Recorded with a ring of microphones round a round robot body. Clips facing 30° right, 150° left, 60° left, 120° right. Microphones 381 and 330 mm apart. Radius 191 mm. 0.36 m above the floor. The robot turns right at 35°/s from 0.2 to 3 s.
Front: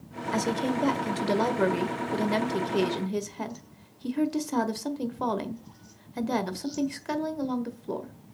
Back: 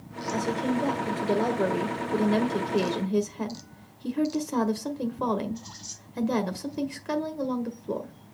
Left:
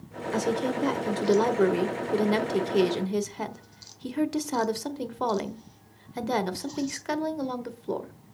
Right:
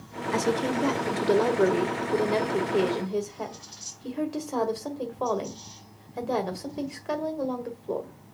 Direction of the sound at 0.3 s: 50° right.